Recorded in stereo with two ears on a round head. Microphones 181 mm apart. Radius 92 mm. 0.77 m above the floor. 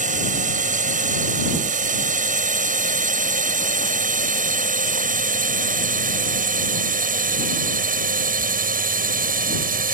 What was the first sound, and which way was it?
A drone, 40° right (ahead or behind).